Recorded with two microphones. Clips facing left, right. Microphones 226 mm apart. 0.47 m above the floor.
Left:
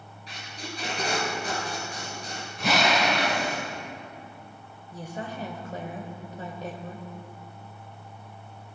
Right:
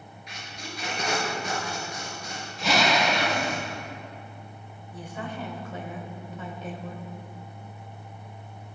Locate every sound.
0.3 s tape being pulled: 35° left (ahead or behind), 4 m
2.6 s a drill: 55° left (ahead or behind), 4 m
4.9 s a woman speaking: 40° left (ahead or behind), 1.6 m